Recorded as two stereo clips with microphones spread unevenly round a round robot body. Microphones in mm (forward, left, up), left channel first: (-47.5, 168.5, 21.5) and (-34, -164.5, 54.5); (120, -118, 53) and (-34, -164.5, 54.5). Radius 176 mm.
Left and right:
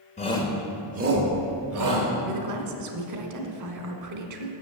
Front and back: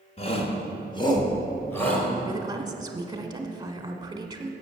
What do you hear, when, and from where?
0.2 s a shout: 40° left, 1.3 m; by 2.1 s 65° right, 2 m
2.3 s a woman speaking: 105° right, 1.3 m